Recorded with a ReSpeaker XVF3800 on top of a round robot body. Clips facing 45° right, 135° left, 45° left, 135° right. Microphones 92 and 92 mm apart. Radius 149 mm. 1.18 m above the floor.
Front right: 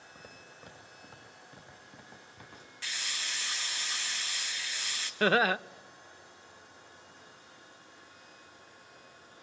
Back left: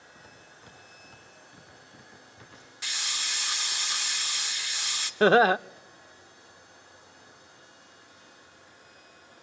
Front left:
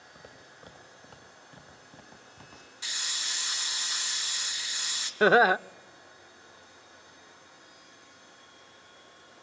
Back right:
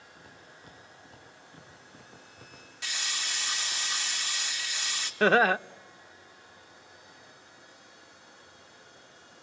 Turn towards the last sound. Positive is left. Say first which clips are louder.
# back left 7 dB, front left 2 dB
turn(degrees=115)